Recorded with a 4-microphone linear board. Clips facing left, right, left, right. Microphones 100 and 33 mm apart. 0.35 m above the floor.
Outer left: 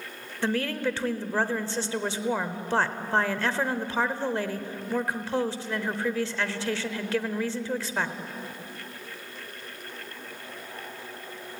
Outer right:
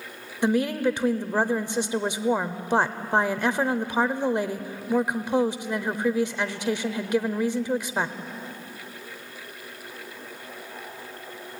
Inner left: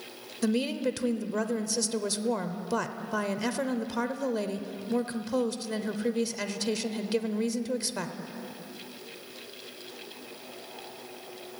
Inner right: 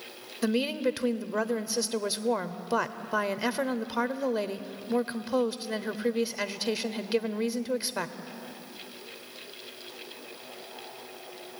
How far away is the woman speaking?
About 0.9 m.